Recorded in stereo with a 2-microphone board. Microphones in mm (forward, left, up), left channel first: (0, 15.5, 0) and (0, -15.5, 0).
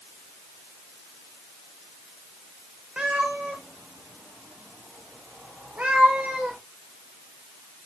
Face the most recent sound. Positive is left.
turn(degrees=-55)  # may be behind; listen again after turning